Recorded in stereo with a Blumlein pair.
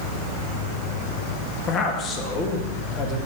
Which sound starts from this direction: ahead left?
A man speaking, at 1.7 s.